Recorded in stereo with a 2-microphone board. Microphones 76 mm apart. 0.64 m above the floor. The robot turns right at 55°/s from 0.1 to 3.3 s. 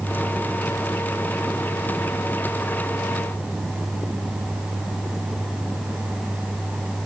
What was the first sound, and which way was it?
Only background noise.